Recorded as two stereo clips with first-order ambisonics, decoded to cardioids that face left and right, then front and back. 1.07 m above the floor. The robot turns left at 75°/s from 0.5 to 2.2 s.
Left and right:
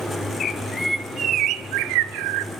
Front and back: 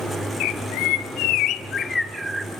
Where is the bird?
30° left, 1.0 m; by 2.5 s 95° right, 1.0 m.